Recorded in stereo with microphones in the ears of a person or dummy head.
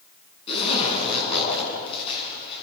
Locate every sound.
0.5 s a zipper: 35° left (ahead or behind), 9 m